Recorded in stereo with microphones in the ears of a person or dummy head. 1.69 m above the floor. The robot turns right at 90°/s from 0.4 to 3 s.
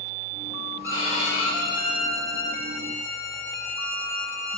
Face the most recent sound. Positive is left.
turn(degrees=-155)